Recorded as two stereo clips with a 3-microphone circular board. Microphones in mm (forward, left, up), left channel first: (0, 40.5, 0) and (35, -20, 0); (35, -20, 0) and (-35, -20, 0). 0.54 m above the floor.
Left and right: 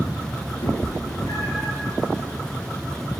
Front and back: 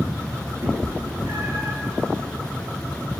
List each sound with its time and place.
0.6 s a cat meowing: 135° left, 1.3 m; by 1.7 s 150° left, 1.8 m